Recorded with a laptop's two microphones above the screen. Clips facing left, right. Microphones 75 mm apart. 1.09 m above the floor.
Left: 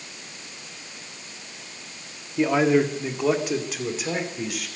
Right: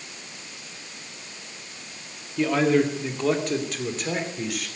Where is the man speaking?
20° left (ahead or behind), 1.9 m; by 4.7 s centre (ahead or behind), 3.5 m.